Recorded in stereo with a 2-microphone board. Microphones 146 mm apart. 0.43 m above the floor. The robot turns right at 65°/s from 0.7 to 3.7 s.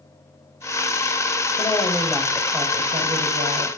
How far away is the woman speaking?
About 2.5 m.